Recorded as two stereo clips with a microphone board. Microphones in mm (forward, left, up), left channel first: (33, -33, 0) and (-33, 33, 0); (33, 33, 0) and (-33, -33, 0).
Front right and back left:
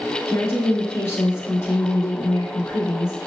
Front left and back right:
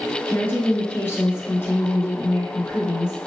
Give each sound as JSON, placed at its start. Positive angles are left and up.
{"t": 0.3, "sound": "a woman speaking", "azimuth_deg": 0, "distance_m": 1.3}